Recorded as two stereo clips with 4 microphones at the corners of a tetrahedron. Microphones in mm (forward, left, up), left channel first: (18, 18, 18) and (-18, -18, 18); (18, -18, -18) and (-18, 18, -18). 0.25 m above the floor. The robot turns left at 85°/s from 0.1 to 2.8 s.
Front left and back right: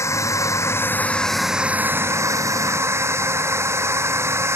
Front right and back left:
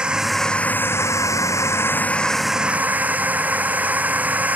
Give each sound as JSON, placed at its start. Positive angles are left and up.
{"t": 0.0, "sound": "a drone", "azimuth_deg": 65}